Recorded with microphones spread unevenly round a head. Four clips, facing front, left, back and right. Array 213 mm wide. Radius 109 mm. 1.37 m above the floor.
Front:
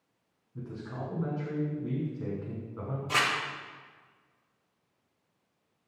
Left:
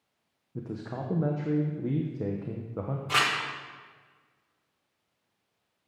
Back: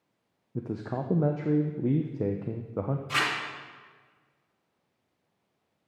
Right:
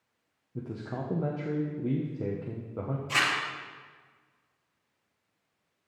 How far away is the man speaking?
About 0.8 m.